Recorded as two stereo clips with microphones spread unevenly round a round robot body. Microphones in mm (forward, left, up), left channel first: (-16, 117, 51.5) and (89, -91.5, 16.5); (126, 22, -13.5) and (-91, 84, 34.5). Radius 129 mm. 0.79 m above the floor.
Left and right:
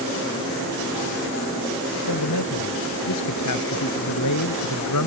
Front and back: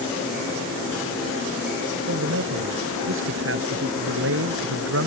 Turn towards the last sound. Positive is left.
turn(degrees=145)